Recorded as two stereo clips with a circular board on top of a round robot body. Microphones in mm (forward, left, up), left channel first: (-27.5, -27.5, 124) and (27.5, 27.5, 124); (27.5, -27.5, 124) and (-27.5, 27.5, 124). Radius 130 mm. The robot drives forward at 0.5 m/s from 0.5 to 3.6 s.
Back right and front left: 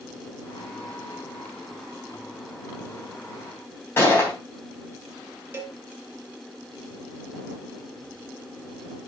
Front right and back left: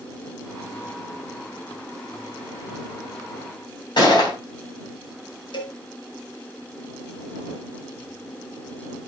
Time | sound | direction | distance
4.0 | a gunshot | 75° right | 3 m
5.5 | a cowbell | 15° right | 1.4 m